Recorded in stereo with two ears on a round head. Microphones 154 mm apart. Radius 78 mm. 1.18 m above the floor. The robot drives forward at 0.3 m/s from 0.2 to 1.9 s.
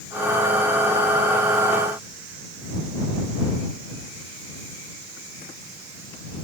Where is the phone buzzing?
No phone buzzing in this recording.